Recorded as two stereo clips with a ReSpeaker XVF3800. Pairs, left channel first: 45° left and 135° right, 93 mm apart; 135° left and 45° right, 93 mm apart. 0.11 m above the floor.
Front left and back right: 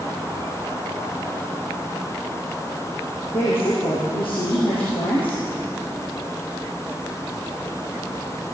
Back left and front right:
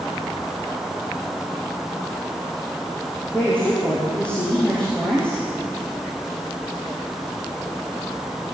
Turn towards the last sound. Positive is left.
turn(degrees=60)